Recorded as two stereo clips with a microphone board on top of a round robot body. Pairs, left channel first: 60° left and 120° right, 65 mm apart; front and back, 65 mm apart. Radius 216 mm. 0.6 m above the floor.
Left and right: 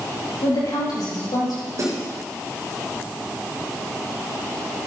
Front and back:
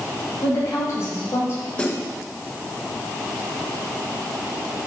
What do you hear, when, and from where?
0.4 s a woman speaking: 50° left, 4.5 m; by 1.6 s 55° left, 4 m
1.8 s a snare drum: 75° right, 3 m